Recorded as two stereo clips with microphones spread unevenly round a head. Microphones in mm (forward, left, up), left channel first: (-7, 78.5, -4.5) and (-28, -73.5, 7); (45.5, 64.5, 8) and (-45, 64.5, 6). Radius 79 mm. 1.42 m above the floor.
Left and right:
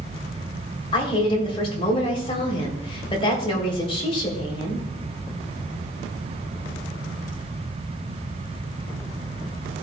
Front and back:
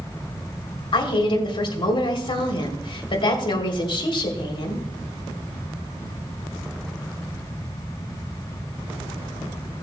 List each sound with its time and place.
0.9 s a woman speaking: 25° left, 3.5 m